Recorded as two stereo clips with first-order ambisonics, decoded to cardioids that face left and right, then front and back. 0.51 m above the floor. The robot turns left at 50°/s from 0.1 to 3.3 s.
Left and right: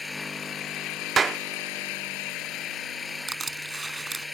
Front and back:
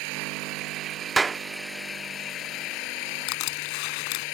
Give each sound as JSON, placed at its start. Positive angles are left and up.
{"t": 0.0, "sound": "an engine running", "azimuth_deg": 170}
{"t": 1.2, "sound": "a clap", "azimuth_deg": -125}
{"t": 3.3, "sound": "crushing", "azimuth_deg": -15}